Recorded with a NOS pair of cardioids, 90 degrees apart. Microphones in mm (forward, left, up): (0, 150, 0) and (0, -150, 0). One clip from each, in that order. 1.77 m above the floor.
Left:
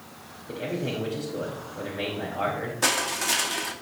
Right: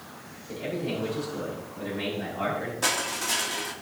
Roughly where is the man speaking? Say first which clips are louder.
Left 1 dB; ahead left.